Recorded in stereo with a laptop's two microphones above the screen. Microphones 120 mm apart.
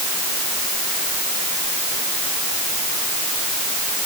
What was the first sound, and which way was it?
Only background noise.